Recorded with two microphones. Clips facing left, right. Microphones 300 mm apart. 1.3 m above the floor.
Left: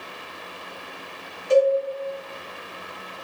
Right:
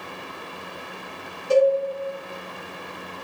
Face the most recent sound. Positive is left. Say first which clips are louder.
# even
turn(degrees=-35)  # may be behind; listen again after turning